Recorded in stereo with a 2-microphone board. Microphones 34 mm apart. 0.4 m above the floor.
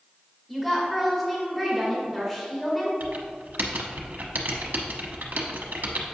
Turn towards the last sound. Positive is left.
turn(degrees=-75)  # may be behind; listen again after turning